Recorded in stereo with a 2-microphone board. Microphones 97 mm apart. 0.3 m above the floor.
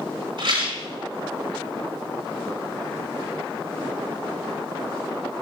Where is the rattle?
65° right (ahead or behind), 3.5 m.